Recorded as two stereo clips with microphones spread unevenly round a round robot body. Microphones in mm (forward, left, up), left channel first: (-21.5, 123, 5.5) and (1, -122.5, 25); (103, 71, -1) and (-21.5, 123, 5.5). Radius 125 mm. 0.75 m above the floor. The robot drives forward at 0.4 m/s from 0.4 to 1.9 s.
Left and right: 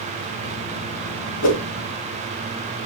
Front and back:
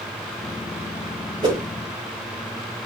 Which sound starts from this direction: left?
A whoosh, at 1.4 s.